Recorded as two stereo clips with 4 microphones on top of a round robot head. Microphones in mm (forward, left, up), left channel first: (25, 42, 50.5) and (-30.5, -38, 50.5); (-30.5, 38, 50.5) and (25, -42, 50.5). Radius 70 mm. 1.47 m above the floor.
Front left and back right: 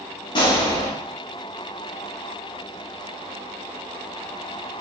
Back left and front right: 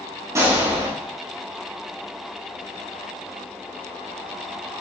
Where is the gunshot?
5° left, 6 m.